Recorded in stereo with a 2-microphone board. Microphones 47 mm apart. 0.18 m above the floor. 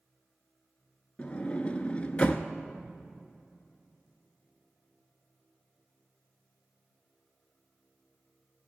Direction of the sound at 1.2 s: 25° left (ahead or behind).